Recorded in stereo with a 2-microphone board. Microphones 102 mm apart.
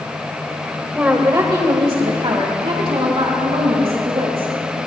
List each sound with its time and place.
0.9 s a woman speaking: 10° right (ahead or behind), 1.3 m; by 4.8 s 75° right (ahead or behind), 6 m